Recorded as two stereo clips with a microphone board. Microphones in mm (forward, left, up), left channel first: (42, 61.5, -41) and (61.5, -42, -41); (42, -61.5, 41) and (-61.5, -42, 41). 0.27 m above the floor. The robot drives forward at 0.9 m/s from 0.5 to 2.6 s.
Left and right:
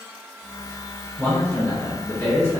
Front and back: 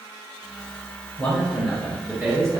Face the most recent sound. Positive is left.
turn(degrees=140)